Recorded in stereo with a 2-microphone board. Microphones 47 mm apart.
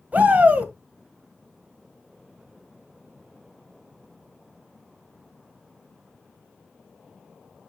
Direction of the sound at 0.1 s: 35° right (ahead or behind).